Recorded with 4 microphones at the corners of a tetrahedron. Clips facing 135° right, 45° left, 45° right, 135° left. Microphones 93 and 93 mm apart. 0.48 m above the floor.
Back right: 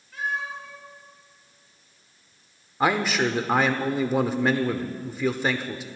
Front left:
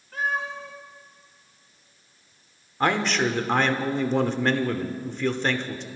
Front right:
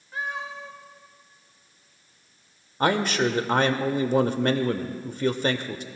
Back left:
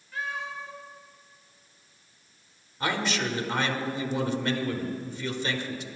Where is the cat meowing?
15° left, 6 m.